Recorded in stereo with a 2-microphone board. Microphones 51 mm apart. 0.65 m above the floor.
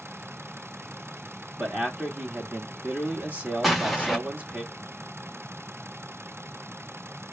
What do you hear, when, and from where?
1.6 s a man speaking: 25° right (ahead or behind), 1.6 m
3.6 s an explosion: centre (ahead or behind), 1.2 m